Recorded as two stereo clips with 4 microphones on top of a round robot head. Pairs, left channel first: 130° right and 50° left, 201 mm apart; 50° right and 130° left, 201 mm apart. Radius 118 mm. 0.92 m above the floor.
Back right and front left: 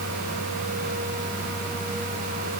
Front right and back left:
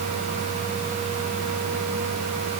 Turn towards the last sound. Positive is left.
No sound to turn to.